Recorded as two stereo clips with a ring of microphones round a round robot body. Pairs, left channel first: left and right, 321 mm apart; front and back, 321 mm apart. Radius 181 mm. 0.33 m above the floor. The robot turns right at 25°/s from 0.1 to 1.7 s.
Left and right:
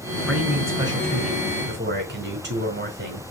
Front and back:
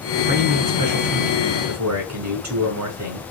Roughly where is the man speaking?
Behind.